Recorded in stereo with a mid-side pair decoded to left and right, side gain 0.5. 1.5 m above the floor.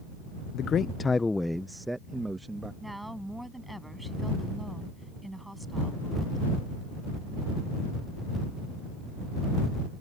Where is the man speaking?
65° left; by 2.7 s 20° right.